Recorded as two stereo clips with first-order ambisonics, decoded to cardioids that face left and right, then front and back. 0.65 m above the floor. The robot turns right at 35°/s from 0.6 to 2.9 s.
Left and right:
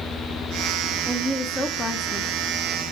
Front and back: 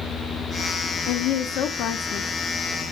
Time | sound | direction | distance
1.1 | a woman speaking | 10° right | 0.7 m